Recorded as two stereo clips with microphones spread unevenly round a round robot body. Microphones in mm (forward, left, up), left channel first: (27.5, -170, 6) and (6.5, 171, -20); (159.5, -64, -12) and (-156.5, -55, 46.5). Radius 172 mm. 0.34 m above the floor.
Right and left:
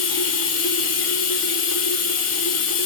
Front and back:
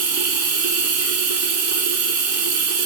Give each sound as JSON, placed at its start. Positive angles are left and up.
{"t": 0.0, "sound": "running water", "azimuth_deg": -140, "distance_m": 0.9}